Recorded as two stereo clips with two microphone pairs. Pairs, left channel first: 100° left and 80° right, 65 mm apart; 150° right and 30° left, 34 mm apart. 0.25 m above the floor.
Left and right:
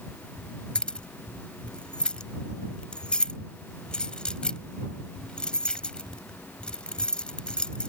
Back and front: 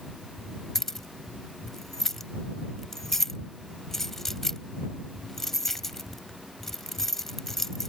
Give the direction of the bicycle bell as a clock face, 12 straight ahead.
No bicycle bell in this recording.